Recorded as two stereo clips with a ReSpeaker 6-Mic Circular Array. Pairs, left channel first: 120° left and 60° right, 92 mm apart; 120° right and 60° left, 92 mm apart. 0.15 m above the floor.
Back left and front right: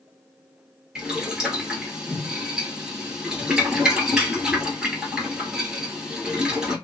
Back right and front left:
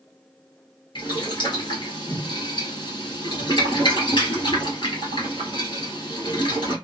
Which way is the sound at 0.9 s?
140° right.